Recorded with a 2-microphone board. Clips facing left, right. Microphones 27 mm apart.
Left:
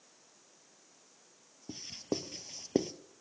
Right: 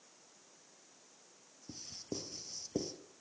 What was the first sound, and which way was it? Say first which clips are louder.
Writing: left 7 dB; 60° left (ahead or behind).